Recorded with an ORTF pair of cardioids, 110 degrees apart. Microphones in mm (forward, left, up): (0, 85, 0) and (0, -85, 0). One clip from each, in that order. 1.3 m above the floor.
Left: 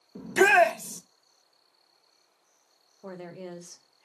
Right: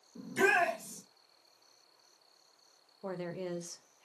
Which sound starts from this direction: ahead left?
A shout, at 0.1 s.